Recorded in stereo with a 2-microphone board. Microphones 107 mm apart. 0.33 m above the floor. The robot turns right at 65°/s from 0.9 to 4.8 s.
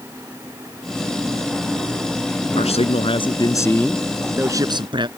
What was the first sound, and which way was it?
A man speaking, 85° left.